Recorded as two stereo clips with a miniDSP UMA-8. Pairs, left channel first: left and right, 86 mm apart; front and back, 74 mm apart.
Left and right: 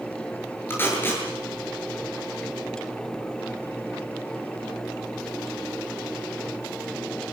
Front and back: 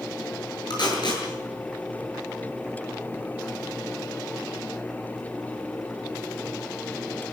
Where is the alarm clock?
No alarm clock in this recording.